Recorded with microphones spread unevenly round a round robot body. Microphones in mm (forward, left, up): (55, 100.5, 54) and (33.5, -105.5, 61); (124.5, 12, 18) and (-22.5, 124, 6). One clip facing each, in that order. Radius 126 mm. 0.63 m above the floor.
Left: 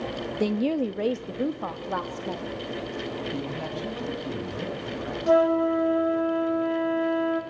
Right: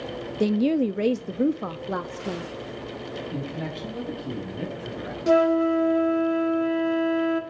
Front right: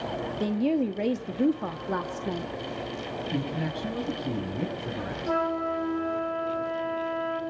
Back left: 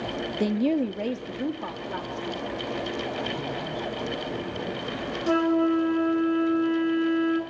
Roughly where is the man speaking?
Ahead.